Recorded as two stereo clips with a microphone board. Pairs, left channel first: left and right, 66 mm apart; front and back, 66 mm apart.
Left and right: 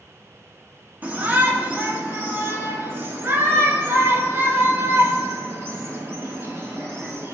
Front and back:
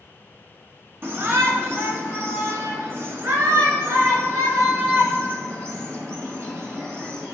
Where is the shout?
145° right, 2 m; by 7.3 s 135° right, 5 m.